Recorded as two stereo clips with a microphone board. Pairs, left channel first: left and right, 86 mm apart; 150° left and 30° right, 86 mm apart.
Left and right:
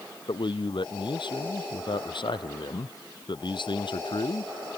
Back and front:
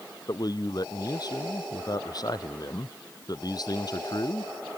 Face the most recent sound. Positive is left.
turn(degrees=110)